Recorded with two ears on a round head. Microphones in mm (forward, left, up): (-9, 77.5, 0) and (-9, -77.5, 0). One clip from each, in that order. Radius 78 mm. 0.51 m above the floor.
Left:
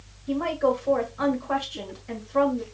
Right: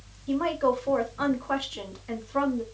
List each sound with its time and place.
0.3 s a woman speaking: 20° right (ahead or behind), 1.6 m